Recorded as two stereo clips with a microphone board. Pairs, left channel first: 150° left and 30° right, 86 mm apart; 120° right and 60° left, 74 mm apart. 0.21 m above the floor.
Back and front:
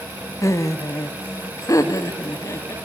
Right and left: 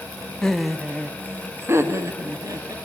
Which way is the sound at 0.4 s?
165° left.